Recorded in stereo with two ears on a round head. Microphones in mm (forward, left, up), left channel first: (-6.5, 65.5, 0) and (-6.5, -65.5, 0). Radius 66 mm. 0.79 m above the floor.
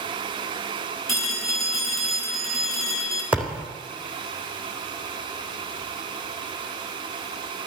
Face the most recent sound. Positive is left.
turn(degrees=-10)  # may be behind; listen again after turning